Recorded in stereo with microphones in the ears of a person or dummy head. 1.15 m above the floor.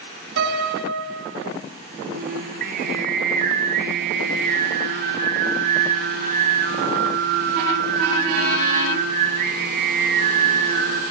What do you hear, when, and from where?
0.4 s a piano: 65° right (ahead or behind), 3.5 m
2.1 s singing: 55° right (ahead or behind), 3 m